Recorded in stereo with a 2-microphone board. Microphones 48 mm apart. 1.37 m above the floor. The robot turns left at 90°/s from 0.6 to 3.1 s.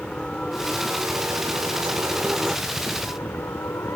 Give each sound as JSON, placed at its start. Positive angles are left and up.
{"t": 0.0, "sound": "a helicopter", "side_deg": 20}